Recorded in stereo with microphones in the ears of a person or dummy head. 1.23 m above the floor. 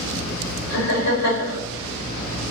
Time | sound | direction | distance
0.7 | laughter | 65° left (ahead or behind) | 1.4 m